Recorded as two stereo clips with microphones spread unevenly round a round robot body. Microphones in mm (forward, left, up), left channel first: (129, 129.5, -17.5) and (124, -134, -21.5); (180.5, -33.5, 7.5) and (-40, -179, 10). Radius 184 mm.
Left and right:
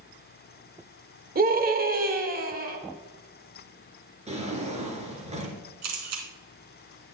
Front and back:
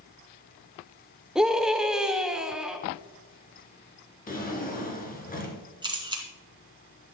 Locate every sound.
1.4 s a scream: 60° right, 1.5 m
4.3 s a drawer: 25° right, 3 m
5.8 s a camera shutter: 75° right, 3 m